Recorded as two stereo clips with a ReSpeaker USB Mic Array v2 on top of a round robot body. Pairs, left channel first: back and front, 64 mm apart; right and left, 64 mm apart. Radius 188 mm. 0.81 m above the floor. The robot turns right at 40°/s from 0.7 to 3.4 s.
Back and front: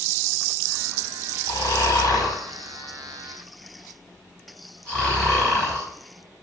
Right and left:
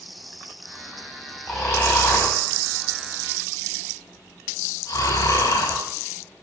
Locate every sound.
1.5 s snoring: straight behind, 5.5 m; by 5.8 s 100° right, 5.5 m